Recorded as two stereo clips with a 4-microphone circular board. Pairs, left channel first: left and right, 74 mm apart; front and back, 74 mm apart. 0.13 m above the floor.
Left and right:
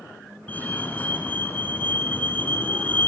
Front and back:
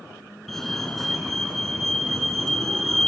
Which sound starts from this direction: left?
A fire alarm, at 0.5 s.